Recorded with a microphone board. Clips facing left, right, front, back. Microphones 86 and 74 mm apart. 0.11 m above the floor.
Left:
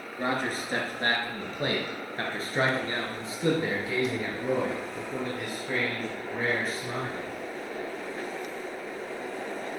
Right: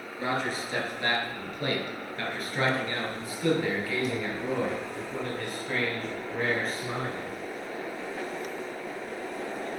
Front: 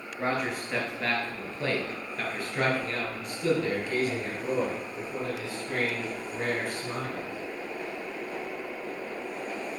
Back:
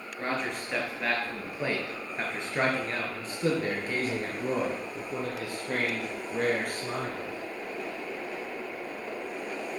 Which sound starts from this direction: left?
A man speaking, at 0.2 s.